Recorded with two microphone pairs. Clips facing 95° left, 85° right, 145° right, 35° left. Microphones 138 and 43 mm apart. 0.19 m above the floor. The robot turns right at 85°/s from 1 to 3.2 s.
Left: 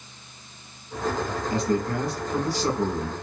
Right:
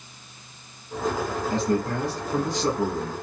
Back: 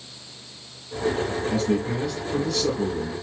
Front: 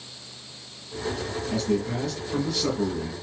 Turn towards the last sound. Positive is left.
turn(degrees=20)